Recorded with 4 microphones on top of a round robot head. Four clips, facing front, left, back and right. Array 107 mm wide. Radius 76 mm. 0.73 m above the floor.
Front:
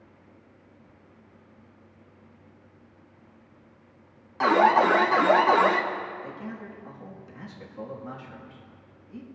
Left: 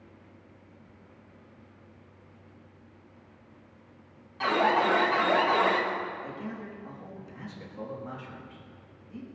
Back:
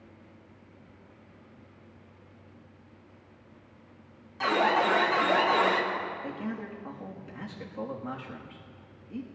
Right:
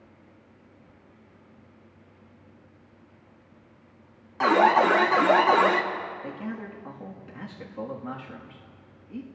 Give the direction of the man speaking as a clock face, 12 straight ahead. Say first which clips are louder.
Right 3 dB, back 2 dB; 4 o'clock.